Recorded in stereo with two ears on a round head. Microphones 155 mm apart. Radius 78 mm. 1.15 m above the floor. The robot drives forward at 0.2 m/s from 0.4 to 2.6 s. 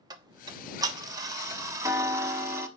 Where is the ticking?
25° right (ahead or behind), 1.1 m; by 2.7 s 15° right (ahead or behind), 1.5 m.